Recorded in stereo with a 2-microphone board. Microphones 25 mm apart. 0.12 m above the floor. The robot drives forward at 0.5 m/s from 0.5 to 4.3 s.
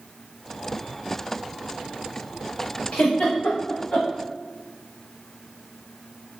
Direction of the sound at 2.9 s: 55° left (ahead or behind).